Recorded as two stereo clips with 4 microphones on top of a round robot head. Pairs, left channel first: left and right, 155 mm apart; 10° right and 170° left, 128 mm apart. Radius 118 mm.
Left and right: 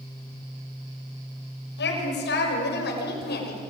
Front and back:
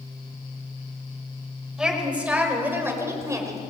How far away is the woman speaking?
About 6 m.